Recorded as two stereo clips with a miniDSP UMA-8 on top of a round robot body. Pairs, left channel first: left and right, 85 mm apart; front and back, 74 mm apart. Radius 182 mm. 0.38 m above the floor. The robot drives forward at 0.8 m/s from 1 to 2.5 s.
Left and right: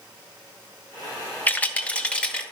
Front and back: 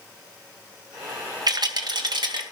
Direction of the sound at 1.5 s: 160° left.